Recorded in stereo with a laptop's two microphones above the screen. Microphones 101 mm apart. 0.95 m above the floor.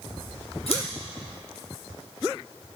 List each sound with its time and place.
0.7 s scissors: 65° left (ahead or behind), 2 m